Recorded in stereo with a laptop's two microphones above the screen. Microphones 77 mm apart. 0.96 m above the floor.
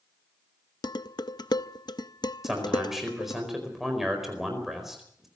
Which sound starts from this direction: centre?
A man speaking, at 2.4 s.